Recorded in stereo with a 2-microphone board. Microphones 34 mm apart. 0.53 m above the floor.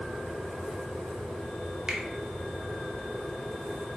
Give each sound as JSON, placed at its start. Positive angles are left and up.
{"t": 1.9, "sound": "a finger snap", "side_deg": -25, "distance_m": 0.7}